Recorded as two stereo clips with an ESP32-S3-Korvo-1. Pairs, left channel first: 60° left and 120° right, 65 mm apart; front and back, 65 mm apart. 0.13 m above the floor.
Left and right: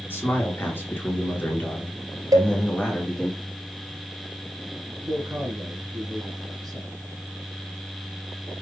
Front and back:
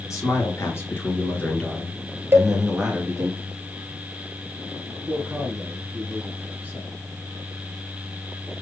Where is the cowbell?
130° right, 1.0 m.